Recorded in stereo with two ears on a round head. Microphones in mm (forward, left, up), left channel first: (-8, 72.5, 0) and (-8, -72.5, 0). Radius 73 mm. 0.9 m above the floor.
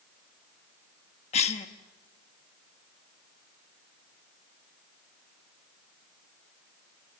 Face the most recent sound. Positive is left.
turn(degrees=45)  # may be behind; listen again after turning